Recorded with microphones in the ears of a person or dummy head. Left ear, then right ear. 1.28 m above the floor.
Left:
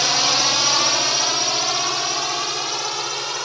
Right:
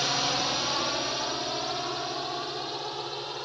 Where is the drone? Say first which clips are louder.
Left 9 dB; 60° left (ahead or behind); by 3.5 s 55° left (ahead or behind).